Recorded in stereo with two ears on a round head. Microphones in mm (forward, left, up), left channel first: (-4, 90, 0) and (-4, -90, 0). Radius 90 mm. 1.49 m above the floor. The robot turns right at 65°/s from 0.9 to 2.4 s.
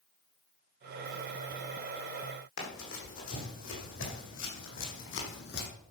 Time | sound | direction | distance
2.6 | running footsteps | 70° left (ahead or behind) | 4.5 m